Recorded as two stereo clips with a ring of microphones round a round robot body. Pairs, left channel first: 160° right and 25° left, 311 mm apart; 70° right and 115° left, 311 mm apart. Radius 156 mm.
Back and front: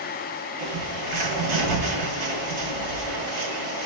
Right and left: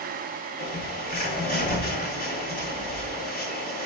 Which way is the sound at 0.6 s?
5° right.